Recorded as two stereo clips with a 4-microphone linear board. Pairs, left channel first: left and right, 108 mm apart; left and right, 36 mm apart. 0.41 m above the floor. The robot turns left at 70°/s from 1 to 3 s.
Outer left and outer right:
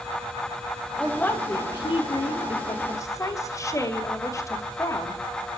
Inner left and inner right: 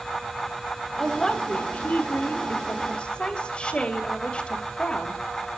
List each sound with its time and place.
1.0 s a woman speaking: straight behind, 2 m; by 5.2 s 40° left, 2 m